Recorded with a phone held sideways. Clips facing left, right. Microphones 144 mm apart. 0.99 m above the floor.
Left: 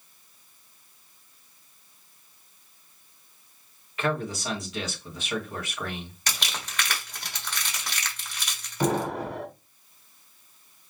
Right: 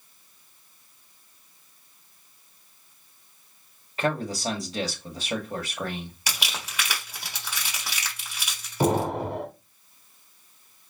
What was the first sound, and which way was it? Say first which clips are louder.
A man speaking: right 1 dB; 35° right (ahead or behind).